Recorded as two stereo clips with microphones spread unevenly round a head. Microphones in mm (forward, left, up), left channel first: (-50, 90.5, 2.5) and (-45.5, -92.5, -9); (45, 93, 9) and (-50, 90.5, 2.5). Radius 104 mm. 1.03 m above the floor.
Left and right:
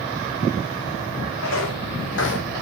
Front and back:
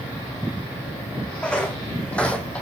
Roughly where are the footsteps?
Left.